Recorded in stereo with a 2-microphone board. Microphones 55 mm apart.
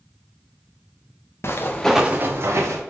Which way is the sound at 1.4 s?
55° left (ahead or behind).